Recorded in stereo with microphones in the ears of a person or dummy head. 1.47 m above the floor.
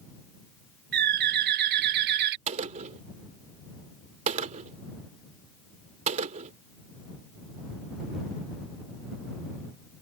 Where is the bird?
65° right (ahead or behind).